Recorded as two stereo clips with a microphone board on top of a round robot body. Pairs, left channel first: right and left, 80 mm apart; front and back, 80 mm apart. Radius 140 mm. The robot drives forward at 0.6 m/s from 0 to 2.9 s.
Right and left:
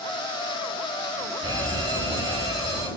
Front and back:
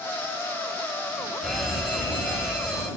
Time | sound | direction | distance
1.4 | a fire alarm | 90° left | 8 m